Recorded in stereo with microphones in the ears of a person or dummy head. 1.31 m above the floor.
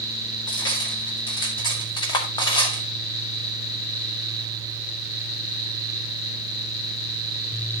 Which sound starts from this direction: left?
Cutlery clinking, at 0.5 s.